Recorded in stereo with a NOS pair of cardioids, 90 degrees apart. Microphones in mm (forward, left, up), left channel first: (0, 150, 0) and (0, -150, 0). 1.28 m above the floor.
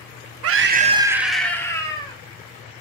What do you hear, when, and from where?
0.4 s a scream: 55° right, 0.8 m; by 2.2 s 15° left, 2.5 m